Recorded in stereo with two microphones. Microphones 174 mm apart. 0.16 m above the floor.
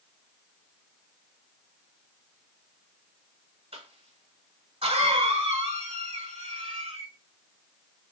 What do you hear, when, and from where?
3.7 s a cough: 35° right (ahead or behind), 1.3 m